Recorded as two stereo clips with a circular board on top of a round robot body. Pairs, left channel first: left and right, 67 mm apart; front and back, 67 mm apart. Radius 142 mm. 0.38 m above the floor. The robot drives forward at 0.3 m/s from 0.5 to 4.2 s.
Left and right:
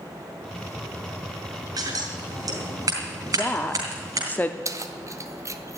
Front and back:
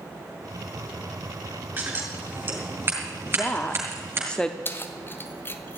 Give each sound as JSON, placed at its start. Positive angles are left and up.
{"t": 1.8, "sound": "scissors", "azimuth_deg": -115, "distance_m": 4.0}
{"t": 3.3, "sound": "a woman speaking", "azimuth_deg": 40, "distance_m": 1.0}
{"t": 4.7, "sound": "keys jangling", "azimuth_deg": -55, "distance_m": 1.1}